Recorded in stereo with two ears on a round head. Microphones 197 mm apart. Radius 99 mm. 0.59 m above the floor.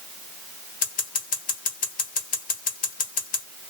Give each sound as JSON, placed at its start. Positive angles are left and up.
{"t": 0.8, "sound": "scissors", "side_deg": 35, "distance_m": 1.6}